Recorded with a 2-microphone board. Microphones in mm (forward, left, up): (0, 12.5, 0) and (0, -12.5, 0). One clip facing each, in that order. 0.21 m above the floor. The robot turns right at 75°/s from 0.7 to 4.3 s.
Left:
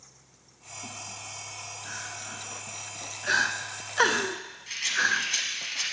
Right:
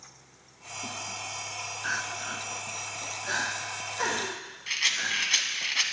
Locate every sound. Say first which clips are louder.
1.8 s crying: right 8 dB; 65° right (ahead or behind), 0.6 m; by 5.7 s 65° left (ahead or behind), 0.6 m
4.7 s a rattle: left 1 dB; 40° right (ahead or behind), 1.0 m